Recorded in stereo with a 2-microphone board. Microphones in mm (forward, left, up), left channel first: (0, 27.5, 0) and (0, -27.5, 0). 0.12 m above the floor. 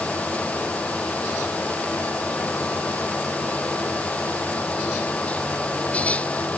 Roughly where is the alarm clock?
No alarm clock in this recording.